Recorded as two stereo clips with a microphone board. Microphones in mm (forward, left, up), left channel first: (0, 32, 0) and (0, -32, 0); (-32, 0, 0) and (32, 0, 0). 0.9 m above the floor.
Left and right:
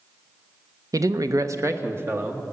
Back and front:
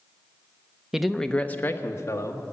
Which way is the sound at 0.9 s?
85° right.